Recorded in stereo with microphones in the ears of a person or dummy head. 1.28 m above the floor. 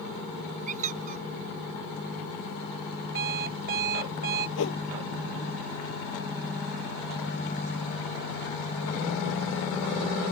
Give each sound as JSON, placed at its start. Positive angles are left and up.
{"t": 0.7, "sound": "a squeak", "side_deg": -40}
{"t": 3.1, "sound": "an alarm clock", "side_deg": -45}
{"t": 4.6, "sound": "a whoosh", "side_deg": 70}